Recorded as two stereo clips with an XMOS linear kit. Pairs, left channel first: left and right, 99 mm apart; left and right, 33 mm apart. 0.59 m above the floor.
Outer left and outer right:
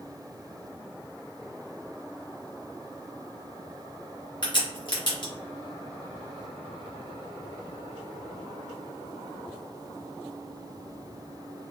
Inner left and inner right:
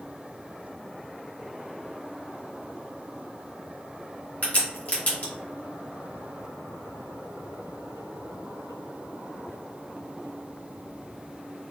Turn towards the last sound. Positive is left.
turn(degrees=50)  # may be behind; listen again after turning